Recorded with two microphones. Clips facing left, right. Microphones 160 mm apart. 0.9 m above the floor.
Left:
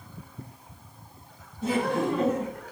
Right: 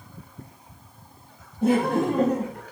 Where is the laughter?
55° right (ahead or behind), 1.4 m; by 2.6 s 25° right (ahead or behind), 0.9 m.